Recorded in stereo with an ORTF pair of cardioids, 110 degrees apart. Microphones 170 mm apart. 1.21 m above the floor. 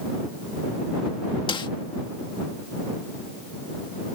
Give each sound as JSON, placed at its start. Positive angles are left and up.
{"t": 1.5, "sound": "a snare drum", "azimuth_deg": 30}